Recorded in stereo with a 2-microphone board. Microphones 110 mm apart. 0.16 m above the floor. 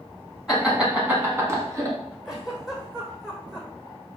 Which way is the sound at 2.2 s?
5° right (ahead or behind).